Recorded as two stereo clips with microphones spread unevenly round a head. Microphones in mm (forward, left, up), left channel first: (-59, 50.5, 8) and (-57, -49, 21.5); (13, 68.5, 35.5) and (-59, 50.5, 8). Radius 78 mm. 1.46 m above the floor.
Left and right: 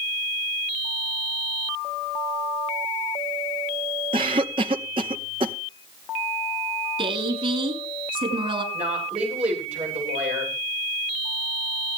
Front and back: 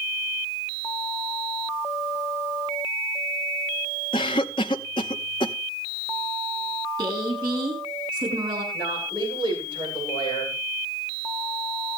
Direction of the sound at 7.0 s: 110° right.